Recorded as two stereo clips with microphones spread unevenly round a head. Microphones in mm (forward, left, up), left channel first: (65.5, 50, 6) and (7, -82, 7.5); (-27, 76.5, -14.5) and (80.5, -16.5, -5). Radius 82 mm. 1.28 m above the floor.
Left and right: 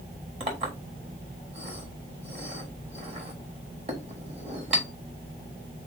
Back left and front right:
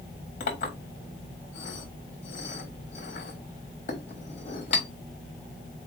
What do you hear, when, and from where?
0.4 s a clink: 170° right, 1.3 m